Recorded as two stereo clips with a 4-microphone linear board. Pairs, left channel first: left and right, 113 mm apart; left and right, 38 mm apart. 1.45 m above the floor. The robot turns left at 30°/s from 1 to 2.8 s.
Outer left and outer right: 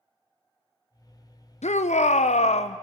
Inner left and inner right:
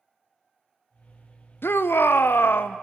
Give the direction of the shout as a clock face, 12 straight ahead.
9 o'clock.